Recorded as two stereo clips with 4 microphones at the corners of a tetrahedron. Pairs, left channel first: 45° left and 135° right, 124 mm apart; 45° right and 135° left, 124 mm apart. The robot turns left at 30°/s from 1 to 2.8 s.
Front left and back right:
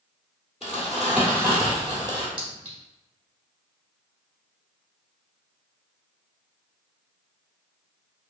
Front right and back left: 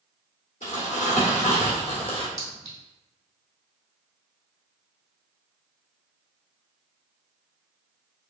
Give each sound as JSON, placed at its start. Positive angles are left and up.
{"t": 0.6, "sound": "crumpling", "azimuth_deg": -50, "distance_m": 1.3}
{"t": 2.4, "sound": "a clink", "azimuth_deg": -90, "distance_m": 1.7}